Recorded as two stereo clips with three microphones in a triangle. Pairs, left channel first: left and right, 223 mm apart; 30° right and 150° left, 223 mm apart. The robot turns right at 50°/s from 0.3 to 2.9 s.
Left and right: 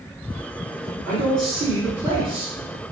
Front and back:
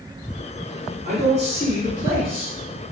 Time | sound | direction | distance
1.1 | a man speaking | 160° left | 1.9 m